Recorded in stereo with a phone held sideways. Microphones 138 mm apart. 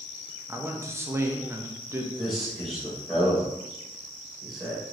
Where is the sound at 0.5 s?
20° right (ahead or behind), 0.5 m.